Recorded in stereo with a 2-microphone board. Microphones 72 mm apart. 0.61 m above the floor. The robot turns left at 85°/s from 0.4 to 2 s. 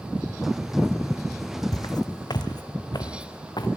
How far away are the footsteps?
About 1.7 m.